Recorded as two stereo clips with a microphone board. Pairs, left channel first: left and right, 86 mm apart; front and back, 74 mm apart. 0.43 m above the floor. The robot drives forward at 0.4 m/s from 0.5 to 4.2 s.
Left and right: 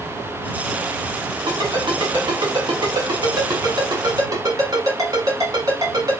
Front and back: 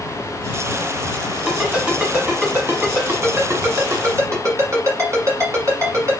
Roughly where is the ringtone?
Right.